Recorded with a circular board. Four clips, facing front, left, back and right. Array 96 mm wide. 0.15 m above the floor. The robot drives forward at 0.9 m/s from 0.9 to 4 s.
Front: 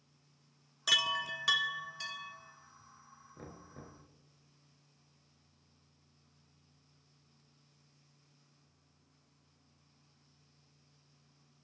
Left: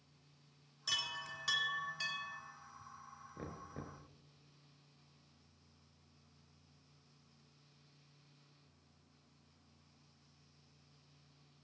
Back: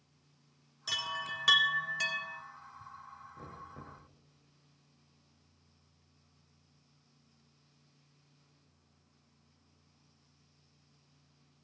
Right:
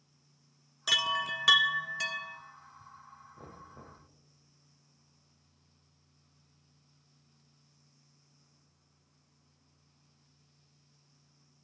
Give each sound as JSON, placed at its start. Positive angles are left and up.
{"t": 0.9, "sound": "a chime", "azimuth_deg": -55, "distance_m": 0.7}
{"t": 3.4, "sound": "knocking", "azimuth_deg": 75, "distance_m": 2.0}